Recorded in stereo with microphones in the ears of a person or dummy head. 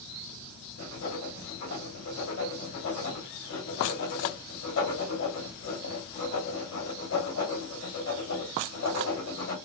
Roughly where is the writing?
Left.